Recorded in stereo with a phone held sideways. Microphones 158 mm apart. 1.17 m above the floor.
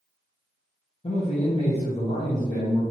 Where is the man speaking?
40° left (ahead or behind), 0.8 m.